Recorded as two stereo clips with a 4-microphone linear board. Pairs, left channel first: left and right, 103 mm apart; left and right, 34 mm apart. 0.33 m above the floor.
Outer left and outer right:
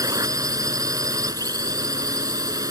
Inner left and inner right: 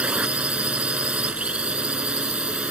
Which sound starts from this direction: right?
A drone, at 0.0 s.